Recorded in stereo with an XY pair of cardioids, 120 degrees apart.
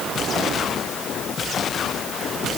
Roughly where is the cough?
I don't hear a cough.